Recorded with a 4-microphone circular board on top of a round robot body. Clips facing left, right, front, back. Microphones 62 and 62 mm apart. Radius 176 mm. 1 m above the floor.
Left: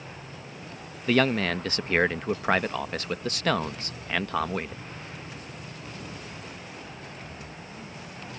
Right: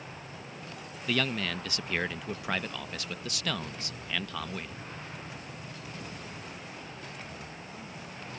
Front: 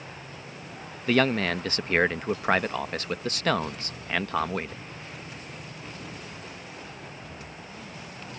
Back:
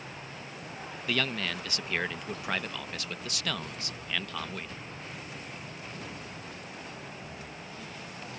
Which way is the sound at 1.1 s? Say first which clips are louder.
Left 8 dB, front 9 dB; 45° left.